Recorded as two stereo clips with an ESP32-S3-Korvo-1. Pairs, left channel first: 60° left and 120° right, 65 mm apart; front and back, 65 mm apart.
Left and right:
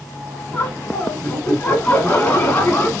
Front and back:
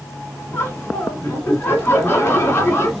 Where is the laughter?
20° left, 1.4 m.